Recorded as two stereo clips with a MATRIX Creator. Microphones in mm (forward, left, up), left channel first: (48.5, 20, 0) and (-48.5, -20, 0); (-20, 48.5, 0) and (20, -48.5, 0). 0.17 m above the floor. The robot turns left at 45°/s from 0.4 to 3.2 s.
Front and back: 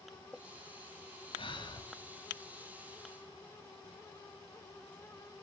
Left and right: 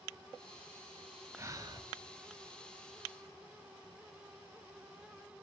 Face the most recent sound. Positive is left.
turn(degrees=-85)